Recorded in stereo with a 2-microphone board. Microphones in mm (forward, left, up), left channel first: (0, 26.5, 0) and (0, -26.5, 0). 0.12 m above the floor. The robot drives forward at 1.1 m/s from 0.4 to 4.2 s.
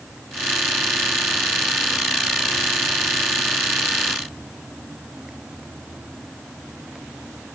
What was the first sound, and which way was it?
Only background noise.